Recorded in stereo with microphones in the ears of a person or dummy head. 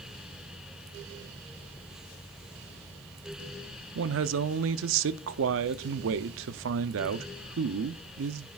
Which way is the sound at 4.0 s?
70° right (ahead or behind).